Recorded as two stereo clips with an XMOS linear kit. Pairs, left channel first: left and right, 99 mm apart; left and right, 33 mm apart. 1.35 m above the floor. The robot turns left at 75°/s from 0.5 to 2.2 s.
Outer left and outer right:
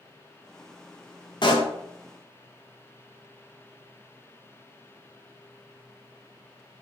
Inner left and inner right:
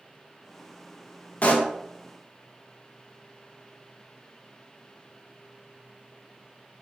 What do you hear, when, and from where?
1.4 s a pop: 50° left (ahead or behind), 0.8 m; by 1.7 s 65° left (ahead or behind), 0.8 m